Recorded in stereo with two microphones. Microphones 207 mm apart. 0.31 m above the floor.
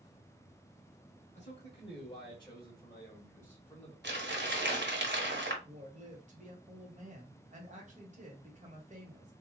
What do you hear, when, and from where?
1.4 s a man speaking: 30° left (ahead or behind), 1.7 m; by 3.9 s 5° left (ahead or behind), 1.6 m
4.0 s crumpling: 55° right (ahead or behind), 1.2 m
5.6 s a woman speaking: 35° right (ahead or behind), 1.4 m